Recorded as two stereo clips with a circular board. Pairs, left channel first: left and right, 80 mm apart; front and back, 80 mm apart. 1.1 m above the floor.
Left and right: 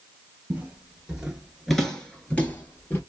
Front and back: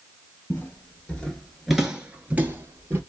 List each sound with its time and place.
0.5 s footsteps: 40° right, 1.3 m; by 3.0 s 140° left, 1.4 m